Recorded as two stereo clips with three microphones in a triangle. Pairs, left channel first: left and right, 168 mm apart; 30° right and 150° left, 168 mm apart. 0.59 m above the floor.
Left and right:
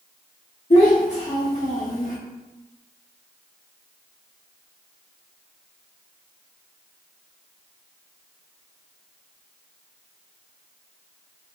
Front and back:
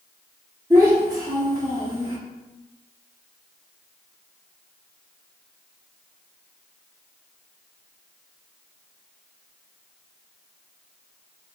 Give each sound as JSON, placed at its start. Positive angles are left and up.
{"t": 0.7, "sound": "a child speaking", "azimuth_deg": 95, "distance_m": 0.7}